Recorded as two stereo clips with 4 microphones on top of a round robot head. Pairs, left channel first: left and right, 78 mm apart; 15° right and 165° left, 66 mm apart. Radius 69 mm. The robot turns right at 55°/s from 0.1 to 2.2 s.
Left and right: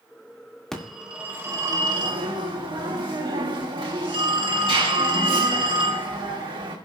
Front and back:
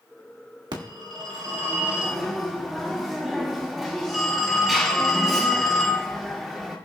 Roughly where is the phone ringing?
Behind.